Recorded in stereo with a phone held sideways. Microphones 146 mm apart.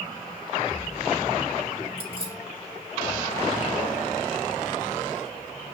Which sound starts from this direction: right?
Keys jangling, at 2.0 s.